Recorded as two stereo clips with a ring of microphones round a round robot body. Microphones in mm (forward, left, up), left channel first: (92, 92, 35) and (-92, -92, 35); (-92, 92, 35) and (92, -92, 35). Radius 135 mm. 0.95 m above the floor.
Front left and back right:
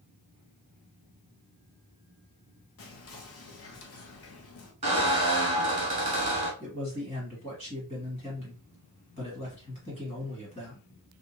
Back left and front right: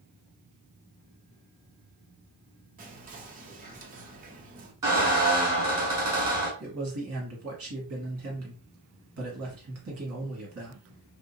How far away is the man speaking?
About 1.7 m.